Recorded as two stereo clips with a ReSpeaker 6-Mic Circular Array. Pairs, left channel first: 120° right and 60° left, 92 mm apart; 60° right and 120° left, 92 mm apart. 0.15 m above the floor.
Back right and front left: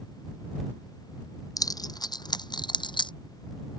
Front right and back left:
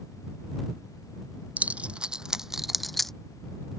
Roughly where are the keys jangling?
Behind.